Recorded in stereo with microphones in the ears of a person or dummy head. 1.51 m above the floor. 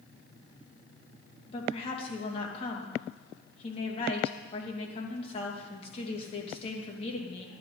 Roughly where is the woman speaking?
Left.